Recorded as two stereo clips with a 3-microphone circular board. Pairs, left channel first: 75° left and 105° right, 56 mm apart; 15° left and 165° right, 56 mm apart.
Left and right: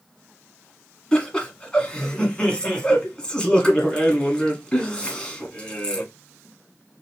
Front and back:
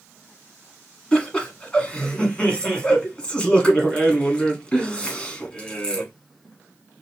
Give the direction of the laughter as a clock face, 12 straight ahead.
11 o'clock.